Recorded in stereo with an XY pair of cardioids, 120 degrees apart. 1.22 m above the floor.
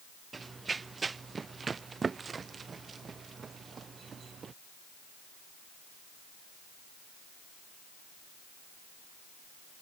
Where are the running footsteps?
25° right; by 4.5 s 35° right.